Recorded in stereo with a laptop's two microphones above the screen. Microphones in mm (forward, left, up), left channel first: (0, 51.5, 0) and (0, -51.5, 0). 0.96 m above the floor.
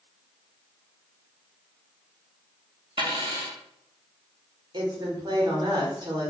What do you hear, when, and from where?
3.0 s a dropped coin: 50° right (ahead or behind), 0.5 m
4.7 s a woman speaking: 45° right (ahead or behind), 0.7 m